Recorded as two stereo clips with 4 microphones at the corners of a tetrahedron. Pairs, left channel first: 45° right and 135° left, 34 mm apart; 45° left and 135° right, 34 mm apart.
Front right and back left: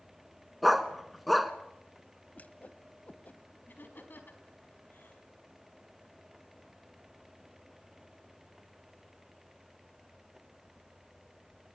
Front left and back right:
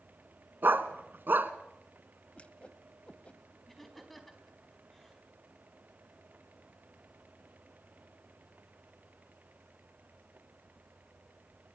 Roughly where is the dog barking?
Behind right.